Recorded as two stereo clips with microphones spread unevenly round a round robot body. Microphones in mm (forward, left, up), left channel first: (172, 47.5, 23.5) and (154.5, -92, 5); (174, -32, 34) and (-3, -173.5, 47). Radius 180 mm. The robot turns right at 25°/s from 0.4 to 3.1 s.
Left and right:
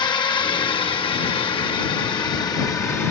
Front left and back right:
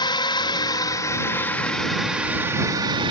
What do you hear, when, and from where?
0.0 s a drone: 70° left; by 3.1 s 160° left